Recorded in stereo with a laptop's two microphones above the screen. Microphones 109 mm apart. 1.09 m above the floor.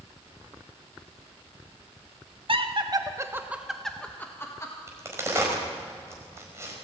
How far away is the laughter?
About 1.5 m.